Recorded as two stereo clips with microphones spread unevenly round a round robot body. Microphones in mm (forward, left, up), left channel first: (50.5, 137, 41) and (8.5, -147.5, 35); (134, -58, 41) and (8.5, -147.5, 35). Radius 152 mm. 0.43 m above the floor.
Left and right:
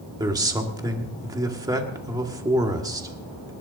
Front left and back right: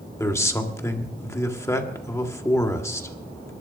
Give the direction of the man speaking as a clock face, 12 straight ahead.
1 o'clock.